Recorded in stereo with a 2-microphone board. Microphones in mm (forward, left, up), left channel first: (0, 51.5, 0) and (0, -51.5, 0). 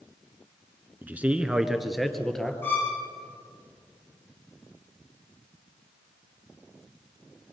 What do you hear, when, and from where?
1.0 s a man speaking: 20° right (ahead or behind), 1.3 m; by 2.5 s 5° left (ahead or behind), 2.5 m
2.6 s a violin: 20° left (ahead or behind), 6 m